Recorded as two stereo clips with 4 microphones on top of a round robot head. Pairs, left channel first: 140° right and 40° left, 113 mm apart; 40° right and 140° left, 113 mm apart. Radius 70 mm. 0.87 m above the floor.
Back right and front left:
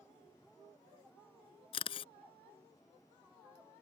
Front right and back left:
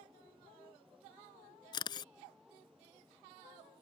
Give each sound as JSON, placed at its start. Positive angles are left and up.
{"t": 1.7, "sound": "a camera shutter", "azimuth_deg": -95}